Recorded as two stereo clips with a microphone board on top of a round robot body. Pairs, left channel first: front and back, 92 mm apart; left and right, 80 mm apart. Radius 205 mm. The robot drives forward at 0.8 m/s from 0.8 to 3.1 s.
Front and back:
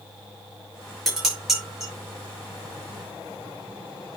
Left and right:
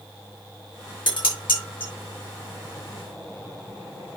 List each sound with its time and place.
1.1 s dishes clattering: 90° left, 7.5 m; by 1.9 s 95° left, 7.5 m